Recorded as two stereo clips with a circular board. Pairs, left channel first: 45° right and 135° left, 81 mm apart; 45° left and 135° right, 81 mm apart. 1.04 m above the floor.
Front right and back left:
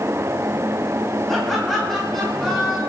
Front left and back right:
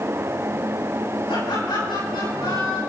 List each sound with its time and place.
1.3 s laughter: 40° left, 8.5 m